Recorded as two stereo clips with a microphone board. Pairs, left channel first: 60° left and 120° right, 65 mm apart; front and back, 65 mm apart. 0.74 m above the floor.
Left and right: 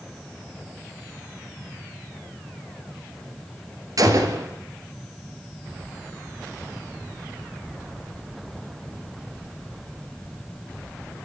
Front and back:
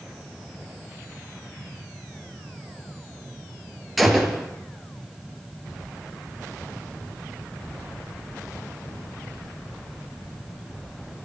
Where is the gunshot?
90° right, 2.5 m.